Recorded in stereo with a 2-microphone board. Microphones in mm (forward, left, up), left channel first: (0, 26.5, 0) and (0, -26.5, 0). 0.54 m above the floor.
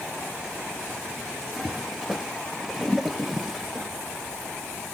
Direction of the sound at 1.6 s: Centre (ahead or behind).